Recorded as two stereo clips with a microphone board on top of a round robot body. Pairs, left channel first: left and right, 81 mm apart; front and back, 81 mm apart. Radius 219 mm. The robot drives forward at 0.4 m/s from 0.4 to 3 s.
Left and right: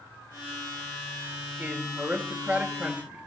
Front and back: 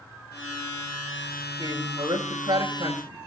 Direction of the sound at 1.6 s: 160° right.